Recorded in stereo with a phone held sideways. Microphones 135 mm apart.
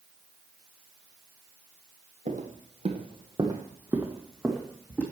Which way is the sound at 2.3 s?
60° right (ahead or behind).